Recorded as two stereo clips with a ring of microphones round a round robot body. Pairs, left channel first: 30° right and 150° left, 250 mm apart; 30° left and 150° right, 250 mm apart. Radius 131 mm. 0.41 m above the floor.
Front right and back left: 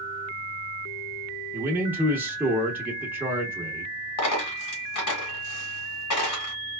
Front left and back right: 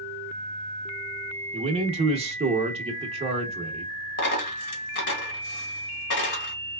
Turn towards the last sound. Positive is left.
turn(degrees=-15)